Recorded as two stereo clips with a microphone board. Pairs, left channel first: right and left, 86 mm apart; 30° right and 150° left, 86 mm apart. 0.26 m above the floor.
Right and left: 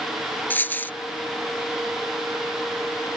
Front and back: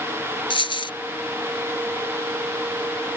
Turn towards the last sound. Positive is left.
turn(degrees=-25)